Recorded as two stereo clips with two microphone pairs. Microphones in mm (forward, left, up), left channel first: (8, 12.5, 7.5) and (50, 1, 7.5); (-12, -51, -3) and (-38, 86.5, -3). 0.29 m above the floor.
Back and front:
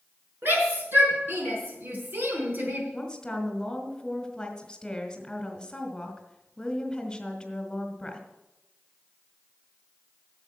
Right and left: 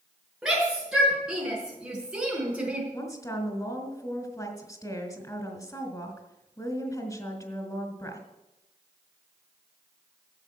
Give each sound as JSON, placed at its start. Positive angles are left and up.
{"t": 0.4, "sound": "a shout", "azimuth_deg": 15, "distance_m": 5.0}
{"t": 2.9, "sound": "a woman speaking", "azimuth_deg": -130, "distance_m": 1.9}